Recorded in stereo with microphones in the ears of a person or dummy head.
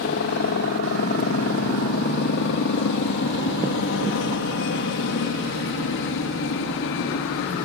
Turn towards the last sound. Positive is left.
turn(degrees=65)  # may be behind; listen again after turning